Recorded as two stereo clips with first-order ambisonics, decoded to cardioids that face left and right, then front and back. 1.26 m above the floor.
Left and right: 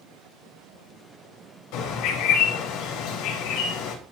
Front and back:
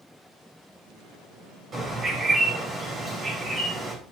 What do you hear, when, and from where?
1.7 s a bird: 110° left, 4 m